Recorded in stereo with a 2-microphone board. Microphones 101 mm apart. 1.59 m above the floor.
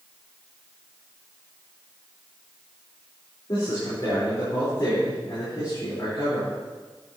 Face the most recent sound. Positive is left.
turn(degrees=45)  # may be behind; listen again after turning